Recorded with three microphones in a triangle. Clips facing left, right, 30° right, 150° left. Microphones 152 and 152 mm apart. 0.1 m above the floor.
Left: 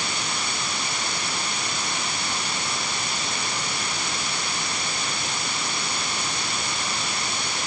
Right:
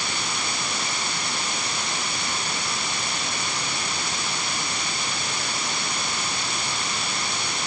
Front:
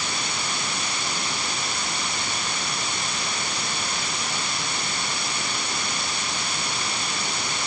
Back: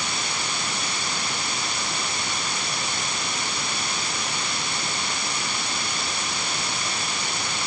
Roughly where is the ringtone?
No ringtone in this recording.